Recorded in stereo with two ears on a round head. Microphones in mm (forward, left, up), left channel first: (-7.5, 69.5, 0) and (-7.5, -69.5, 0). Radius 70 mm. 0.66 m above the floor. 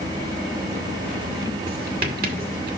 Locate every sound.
1.7 s writing: 60° right (ahead or behind), 2 m